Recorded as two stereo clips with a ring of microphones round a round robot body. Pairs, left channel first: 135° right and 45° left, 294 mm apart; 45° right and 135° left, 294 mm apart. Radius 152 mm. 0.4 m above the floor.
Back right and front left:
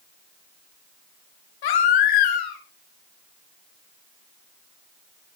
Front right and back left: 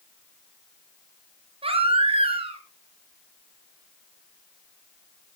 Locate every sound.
1.6 s a baby crying: 150° right, 2.5 m